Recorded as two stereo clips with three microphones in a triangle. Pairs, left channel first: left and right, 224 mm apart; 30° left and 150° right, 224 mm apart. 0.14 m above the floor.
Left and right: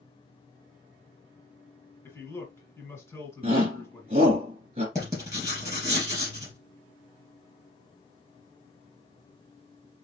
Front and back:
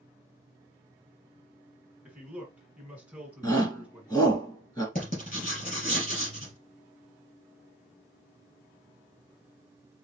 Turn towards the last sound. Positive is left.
turn(degrees=-15)